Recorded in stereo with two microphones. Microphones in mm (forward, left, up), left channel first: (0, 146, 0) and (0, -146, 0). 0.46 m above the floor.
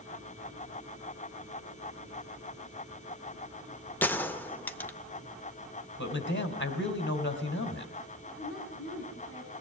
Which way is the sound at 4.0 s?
5° left (ahead or behind).